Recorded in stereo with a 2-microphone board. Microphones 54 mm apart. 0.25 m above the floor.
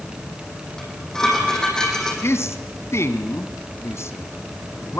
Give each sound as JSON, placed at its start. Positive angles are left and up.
{"t": 0.8, "sound": "dishes clattering", "side_deg": 10, "distance_m": 7.0}
{"t": 2.2, "sound": "a man speaking", "side_deg": 55, "distance_m": 1.7}